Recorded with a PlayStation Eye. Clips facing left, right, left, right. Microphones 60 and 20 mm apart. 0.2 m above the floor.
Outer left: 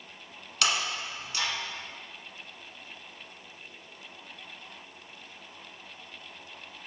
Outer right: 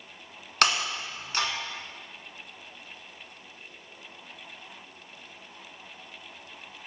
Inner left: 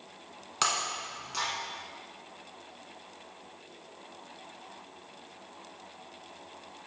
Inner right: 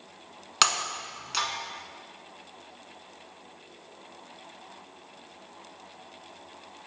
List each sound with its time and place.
0.6 s breaking glass: 55° right (ahead or behind), 0.9 m